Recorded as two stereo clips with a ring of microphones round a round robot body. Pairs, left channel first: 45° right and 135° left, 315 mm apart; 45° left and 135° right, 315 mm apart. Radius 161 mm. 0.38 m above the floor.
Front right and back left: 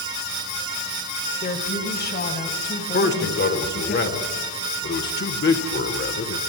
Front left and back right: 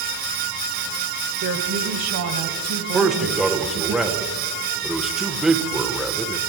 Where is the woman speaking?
105° right, 1.4 m; by 3.9 s 100° right, 4 m.